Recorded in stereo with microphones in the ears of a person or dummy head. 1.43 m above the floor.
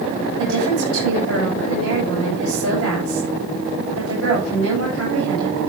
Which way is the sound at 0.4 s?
75° right (ahead or behind).